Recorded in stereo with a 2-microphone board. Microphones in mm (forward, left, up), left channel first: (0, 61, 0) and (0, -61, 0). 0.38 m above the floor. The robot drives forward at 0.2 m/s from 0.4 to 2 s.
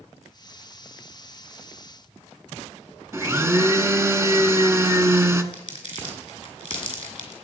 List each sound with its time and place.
3.1 s a blender: 20° right (ahead or behind), 1.0 m
5.5 s crumpling: 45° left (ahead or behind), 4.5 m